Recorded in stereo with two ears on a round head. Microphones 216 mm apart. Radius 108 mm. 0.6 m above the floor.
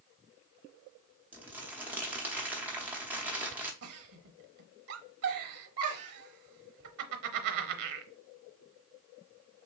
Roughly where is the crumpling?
Centre.